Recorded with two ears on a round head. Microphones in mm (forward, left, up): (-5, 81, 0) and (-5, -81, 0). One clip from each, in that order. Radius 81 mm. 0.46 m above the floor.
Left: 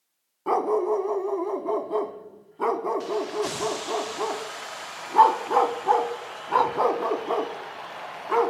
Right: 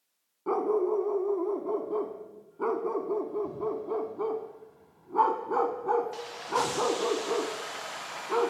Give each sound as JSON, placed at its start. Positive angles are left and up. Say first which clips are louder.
{"t": 0.5, "sound": "a dog barking", "louder": "left 4 dB", "side_deg": 65, "distance_m": 1.1}